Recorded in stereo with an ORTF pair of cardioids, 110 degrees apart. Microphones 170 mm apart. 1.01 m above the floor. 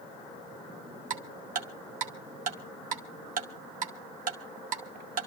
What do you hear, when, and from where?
1.1 s ticking: 55° right, 2 m